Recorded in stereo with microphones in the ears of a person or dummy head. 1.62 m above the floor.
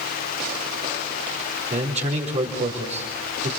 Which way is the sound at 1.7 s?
35° right (ahead or behind).